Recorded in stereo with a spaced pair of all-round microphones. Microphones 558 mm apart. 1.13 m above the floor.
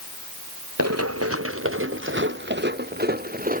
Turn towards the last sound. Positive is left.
turn(degrees=-15)  # may be behind; listen again after turning